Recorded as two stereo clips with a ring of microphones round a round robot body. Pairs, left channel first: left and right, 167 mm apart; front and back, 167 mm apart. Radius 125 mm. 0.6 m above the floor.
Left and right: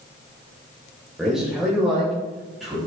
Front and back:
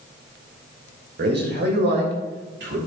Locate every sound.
1.2 s a man speaking: 175° right, 2.5 m; by 2.8 s straight behind, 4 m